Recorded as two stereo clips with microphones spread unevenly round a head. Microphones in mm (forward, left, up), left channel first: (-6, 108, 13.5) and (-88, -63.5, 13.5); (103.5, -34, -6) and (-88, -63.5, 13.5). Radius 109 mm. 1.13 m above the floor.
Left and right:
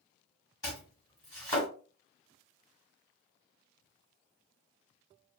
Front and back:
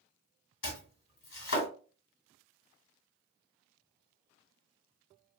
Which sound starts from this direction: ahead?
Chopping, at 0.6 s.